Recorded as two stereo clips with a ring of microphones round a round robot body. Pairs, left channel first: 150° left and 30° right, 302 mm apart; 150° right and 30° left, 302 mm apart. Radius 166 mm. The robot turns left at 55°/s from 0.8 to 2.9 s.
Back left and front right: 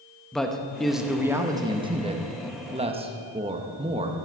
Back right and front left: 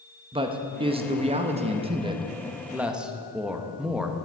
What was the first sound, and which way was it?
A man speaking, 65° left.